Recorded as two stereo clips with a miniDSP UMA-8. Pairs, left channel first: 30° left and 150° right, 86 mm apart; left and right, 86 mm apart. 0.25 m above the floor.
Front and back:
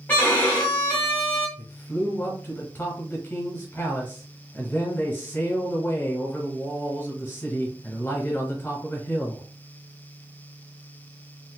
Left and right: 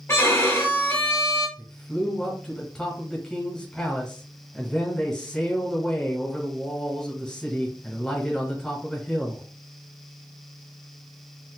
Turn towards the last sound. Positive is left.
turn(degrees=20)